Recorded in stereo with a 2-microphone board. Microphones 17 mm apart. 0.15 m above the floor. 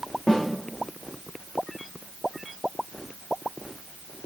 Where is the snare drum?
50° left (ahead or behind), 5.5 m.